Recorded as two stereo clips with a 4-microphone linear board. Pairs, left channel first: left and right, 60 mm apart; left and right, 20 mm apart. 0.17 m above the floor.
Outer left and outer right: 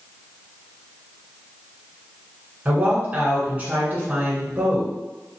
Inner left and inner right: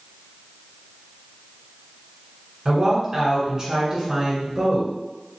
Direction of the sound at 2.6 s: 30° right (ahead or behind).